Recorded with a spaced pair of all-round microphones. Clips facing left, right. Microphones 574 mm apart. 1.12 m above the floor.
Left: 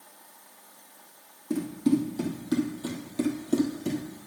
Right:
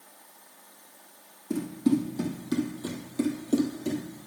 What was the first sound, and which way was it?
Running footsteps, 5° right (ahead or behind).